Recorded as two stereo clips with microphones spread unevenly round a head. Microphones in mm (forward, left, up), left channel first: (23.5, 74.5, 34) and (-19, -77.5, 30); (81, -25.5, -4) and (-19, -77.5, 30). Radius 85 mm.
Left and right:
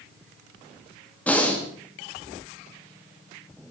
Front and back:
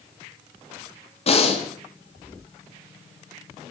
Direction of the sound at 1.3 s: 5° right.